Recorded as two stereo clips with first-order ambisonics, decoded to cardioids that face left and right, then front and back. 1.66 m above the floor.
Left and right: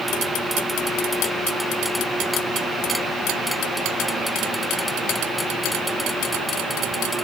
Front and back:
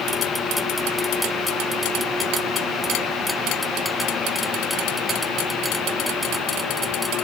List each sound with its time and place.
Only background noise.